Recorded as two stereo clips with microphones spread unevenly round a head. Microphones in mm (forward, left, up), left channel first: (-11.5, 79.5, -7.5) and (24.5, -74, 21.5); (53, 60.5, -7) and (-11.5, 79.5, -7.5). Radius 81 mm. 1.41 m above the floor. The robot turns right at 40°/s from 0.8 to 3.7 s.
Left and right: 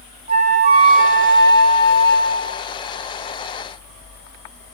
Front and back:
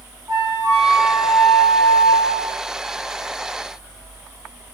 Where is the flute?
130° right, 1.4 m; by 2.6 s 60° right, 1.4 m.